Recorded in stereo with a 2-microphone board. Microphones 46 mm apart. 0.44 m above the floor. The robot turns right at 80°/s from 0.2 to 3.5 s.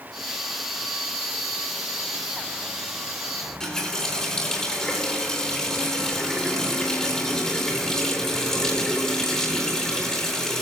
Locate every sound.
3.4 s a running tap: 5° left (ahead or behind), 5.5 m; by 10.6 s 10° left (ahead or behind), 5.5 m